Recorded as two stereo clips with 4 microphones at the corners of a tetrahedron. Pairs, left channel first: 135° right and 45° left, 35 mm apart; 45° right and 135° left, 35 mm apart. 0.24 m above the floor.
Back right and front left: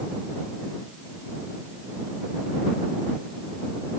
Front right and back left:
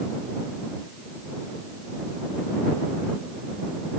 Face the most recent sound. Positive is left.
No sound to turn to.